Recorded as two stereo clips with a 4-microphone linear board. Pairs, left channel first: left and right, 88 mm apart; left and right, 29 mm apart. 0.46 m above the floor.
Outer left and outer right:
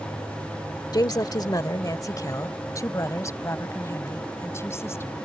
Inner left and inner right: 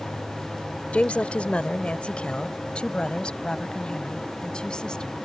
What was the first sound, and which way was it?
A woman speaking, 50° left (ahead or behind).